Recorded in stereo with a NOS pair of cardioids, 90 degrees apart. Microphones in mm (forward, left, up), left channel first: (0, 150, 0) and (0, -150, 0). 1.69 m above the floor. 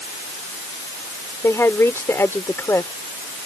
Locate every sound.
1.4 s a woman speaking: 10° left